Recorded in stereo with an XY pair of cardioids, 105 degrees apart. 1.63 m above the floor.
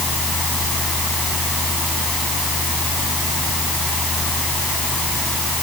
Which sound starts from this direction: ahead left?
A fan, at 0.0 s.